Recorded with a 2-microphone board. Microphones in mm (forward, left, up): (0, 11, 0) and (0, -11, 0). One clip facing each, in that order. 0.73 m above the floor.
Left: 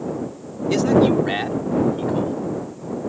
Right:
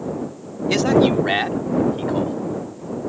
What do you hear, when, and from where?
0.7 s a man speaking: 35° right (ahead or behind); by 2.4 s 15° right (ahead or behind)